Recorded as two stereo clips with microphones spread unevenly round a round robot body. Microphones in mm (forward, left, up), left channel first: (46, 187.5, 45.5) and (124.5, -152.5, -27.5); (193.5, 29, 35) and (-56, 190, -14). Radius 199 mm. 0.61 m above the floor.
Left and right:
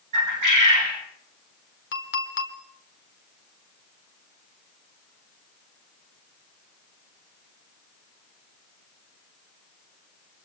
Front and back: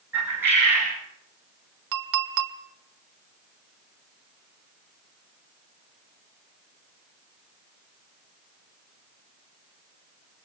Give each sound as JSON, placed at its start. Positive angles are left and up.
{"t": 0.1, "sound": "a bird", "azimuth_deg": -125, "distance_m": 4.5}
{"t": 1.9, "sound": "a clink", "azimuth_deg": 170, "distance_m": 1.4}